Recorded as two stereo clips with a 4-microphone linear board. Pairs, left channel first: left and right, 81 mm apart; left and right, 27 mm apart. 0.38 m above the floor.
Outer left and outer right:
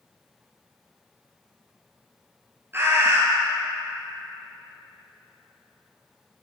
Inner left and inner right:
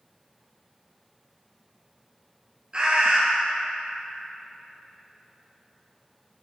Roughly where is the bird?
Right.